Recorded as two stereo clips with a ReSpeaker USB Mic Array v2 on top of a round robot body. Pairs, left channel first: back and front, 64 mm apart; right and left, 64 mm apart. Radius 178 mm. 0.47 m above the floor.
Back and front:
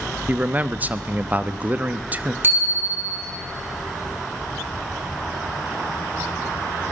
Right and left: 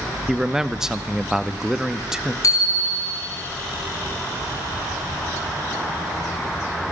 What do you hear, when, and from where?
0.3 s a man speaking: 20° left, 1.3 m
2.4 s a bicycle bell: 55° right, 4 m